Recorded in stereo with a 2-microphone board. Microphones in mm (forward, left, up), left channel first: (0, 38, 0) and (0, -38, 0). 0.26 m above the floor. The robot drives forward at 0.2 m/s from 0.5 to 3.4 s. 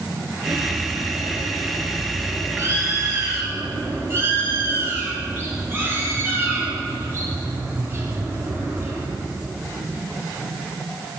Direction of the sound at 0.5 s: 35° right (ahead or behind).